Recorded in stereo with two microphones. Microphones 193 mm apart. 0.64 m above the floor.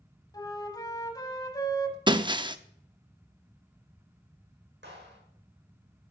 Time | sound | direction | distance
0.3 | a flute | 20° left (ahead or behind) | 1.6 m
2.1 | breaking glass | 25° right (ahead or behind) | 0.6 m
4.8 | a clap | 70° right (ahead or behind) | 5.5 m